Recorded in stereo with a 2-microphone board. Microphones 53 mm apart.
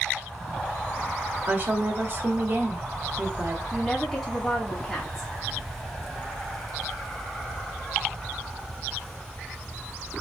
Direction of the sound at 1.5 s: 40° right (ahead or behind).